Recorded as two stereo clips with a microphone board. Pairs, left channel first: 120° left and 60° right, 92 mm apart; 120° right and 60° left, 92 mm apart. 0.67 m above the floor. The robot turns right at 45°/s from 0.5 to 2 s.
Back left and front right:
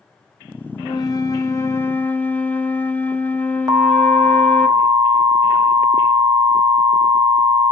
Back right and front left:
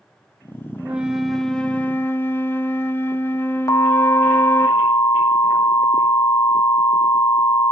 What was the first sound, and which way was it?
A flute, 125° left.